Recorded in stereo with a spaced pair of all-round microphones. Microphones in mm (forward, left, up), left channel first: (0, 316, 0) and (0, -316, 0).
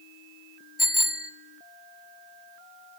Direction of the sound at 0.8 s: 35° left (ahead or behind).